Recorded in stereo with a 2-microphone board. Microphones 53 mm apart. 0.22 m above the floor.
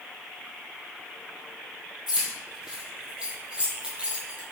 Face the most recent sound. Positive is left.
turn(degrees=-25)  # may be behind; listen again after turning